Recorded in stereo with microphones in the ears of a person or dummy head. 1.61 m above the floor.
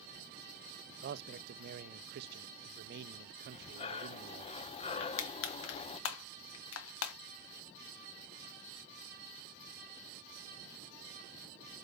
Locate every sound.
1.0 s a man speaking: 55° right (ahead or behind), 0.7 m
3.5 s breathing: 30° left (ahead or behind), 0.6 m
5.0 s crushing: 70° left (ahead or behind), 1.2 m